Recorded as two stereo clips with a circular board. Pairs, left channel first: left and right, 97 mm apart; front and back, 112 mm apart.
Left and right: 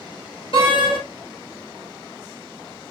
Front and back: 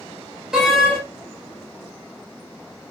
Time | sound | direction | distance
0.5 | a door slam | 95° left | 2 m